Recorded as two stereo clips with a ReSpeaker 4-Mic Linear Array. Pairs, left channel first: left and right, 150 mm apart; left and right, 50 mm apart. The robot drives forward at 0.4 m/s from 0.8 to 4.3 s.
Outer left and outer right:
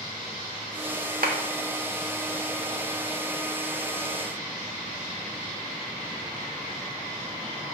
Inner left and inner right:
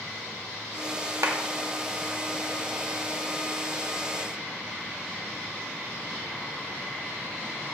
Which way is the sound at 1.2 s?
75° right (ahead or behind).